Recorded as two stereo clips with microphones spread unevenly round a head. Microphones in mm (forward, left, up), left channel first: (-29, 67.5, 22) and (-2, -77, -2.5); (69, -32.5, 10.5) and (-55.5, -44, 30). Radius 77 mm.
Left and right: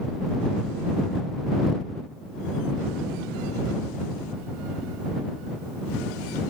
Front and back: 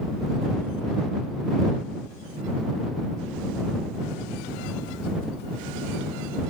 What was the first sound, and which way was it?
Only background noise.